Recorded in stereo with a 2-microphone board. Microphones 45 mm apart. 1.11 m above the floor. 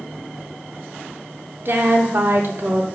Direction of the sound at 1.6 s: 55° right (ahead or behind).